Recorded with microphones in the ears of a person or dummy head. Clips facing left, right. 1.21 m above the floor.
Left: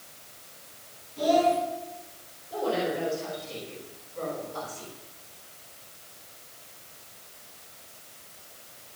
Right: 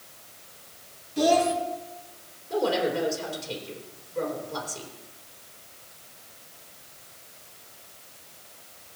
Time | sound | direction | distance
1.2 | a child speaking | 80° right | 2 m
2.5 | a woman speaking | 75° right (ahead or behind) | 3.5 m